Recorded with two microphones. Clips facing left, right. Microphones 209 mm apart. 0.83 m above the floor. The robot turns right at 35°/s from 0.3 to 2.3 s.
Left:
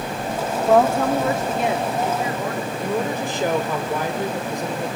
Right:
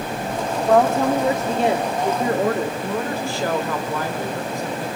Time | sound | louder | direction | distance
0.7 | a woman speaking | even | 175° left | 2.0 m
2.8 | a woman speaking | left 1 dB | 20° left (ahead or behind) | 2.5 m